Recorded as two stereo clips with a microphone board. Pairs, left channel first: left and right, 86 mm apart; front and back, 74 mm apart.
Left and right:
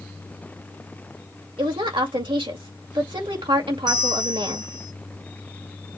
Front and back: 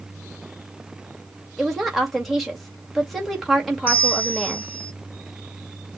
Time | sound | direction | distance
1.6 | a woman speaking | 90° right | 2 m
3.9 | a bell | 65° right | 2 m